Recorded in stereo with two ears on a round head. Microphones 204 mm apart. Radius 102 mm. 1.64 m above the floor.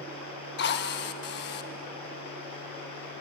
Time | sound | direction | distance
0.6 | a drill | 50° left (ahead or behind) | 1.4 m